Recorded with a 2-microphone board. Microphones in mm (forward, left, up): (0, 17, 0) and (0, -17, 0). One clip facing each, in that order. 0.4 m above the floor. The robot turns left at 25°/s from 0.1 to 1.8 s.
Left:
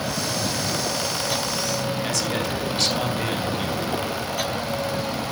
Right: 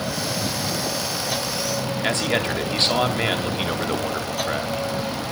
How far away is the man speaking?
About 2.5 m.